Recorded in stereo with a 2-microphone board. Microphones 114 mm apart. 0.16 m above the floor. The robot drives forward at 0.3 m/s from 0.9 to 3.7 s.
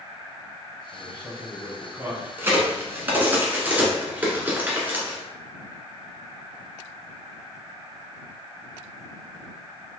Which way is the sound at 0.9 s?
25° right (ahead or behind).